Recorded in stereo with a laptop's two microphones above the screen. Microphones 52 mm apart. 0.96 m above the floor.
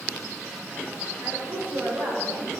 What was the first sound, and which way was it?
A woman speaking, 70° right (ahead or behind).